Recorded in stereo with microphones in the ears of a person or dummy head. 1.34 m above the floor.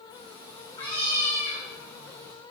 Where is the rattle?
I don't hear a rattle.